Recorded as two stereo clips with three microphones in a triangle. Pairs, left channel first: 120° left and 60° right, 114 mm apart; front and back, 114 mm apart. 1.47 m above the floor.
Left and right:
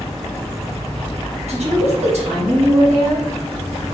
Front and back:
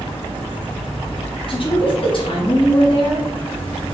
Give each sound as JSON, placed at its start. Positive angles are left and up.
{"t": 1.5, "sound": "a woman speaking", "azimuth_deg": -40, "distance_m": 1.5}